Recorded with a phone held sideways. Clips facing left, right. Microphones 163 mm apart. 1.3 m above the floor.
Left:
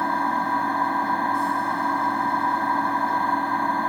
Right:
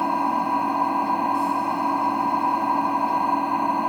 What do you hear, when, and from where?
0.0 s an engine running: 10° right (ahead or behind)